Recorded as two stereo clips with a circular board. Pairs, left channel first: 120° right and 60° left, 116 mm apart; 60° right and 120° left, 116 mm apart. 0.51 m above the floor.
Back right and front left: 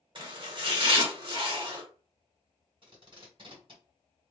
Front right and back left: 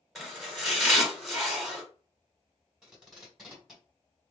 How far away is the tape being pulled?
About 1.7 m.